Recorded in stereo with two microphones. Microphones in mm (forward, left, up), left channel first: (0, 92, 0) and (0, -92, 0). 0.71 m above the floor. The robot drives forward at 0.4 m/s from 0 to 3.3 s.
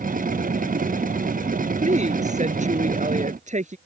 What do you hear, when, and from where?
1.8 s a woman speaking: 40° right (ahead or behind)